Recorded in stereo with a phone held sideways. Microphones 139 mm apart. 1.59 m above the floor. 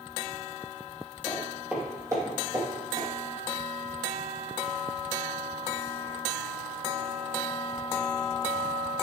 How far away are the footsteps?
About 1.7 m.